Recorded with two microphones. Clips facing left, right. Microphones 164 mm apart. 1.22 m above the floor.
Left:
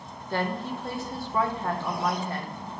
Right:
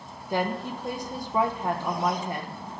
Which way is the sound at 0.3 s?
15° right (ahead or behind).